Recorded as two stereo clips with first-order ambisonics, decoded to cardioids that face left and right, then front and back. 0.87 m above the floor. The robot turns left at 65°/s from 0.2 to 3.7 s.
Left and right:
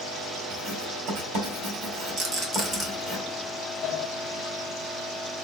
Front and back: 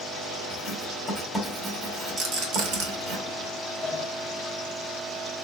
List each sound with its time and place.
0.5 s writing: 20° right, 2 m; by 3.2 s 165° left, 2 m
2.2 s a rattle: 125° right, 1.8 m; by 2.9 s 170° right, 1.8 m
3.8 s a sliding door: 70° left, 0.6 m